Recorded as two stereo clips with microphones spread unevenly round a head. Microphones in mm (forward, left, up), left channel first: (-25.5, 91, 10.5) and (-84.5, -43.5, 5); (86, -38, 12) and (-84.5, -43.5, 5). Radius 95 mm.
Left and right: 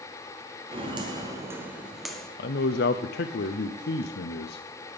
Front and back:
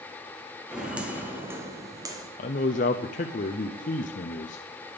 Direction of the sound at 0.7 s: 90° right.